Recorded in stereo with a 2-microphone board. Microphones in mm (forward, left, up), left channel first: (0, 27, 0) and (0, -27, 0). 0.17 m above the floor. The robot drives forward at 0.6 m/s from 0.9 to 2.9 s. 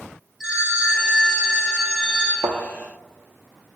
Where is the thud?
80° right, 0.6 m; by 2.6 s 85° right, 0.6 m.